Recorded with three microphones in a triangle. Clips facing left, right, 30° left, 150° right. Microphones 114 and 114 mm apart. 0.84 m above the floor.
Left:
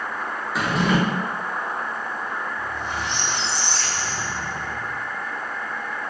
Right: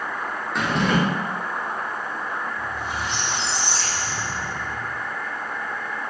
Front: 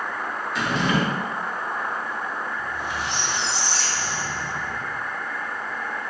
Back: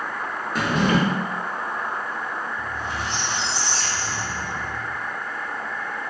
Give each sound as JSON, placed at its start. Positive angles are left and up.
{"t": 0.6, "sound": "a drawer", "azimuth_deg": 175, "distance_m": 0.6}
{"t": 2.6, "sound": "a squeak", "azimuth_deg": -170, "distance_m": 1.0}